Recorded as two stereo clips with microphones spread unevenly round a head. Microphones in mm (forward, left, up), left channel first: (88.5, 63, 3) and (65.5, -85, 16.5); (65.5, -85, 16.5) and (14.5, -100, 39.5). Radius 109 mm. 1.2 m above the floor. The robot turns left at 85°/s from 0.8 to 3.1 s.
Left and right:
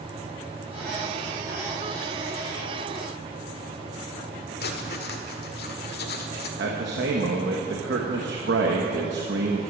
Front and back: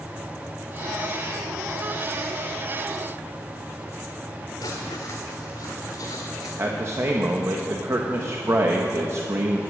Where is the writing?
85° left, 1.5 m.